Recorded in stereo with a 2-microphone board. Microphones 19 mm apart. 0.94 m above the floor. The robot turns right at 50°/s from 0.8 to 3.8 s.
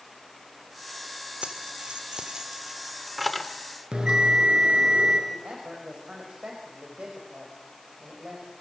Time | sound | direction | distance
1.4 | keys jangling | 90° right | 2 m
3.9 | a bell | 50° right (ahead or behind) | 5.5 m
5.3 | a woman speaking | 70° right (ahead or behind) | 5 m